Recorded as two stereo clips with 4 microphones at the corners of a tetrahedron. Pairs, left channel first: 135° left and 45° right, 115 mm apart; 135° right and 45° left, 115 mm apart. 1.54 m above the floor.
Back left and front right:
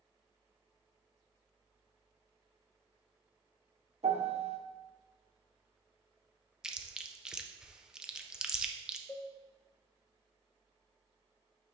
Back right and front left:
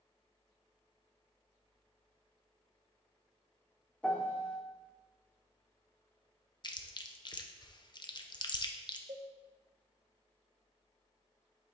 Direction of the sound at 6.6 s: 125° right.